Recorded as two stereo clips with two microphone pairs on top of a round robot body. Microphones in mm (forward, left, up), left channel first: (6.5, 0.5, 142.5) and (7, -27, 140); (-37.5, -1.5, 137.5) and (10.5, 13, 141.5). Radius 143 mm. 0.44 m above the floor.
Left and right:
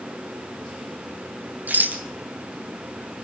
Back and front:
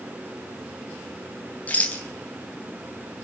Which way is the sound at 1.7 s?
105° right.